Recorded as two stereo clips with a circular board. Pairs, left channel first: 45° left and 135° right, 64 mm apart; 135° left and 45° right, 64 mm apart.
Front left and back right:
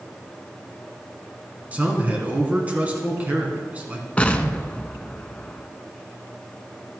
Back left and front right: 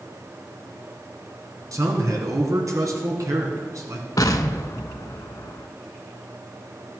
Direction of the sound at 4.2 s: 115° left.